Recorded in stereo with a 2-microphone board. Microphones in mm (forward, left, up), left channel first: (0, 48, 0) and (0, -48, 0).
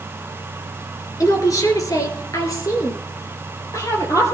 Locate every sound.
1.2 s a woman speaking: 40° left (ahead or behind), 3 m; by 4.3 s 35° left (ahead or behind), 5 m